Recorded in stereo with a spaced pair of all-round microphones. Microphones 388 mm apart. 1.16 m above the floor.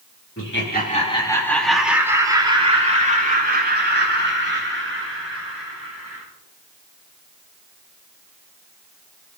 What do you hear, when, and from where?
0.4 s laughter: 35° left (ahead or behind), 3 m; by 6.2 s 35° right (ahead or behind), 9.5 m